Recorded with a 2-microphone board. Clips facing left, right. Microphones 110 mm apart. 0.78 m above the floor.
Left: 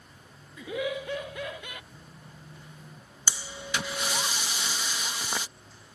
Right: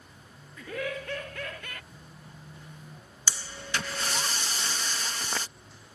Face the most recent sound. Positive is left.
turn(degrees=10)  # may be behind; listen again after turning